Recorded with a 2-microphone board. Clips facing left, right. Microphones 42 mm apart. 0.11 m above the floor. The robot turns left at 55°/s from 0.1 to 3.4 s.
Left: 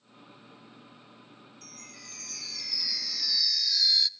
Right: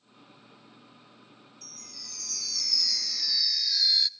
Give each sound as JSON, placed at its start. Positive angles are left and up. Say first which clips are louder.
{"t": 1.6, "sound": "a chime", "louder": "left 1 dB", "azimuth_deg": 95, "distance_m": 0.6}